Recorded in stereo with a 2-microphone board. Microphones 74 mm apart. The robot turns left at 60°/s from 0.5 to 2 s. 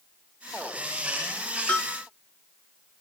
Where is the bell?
20° left (ahead or behind), 7.5 m; by 2.0 s centre (ahead or behind), 7.5 m.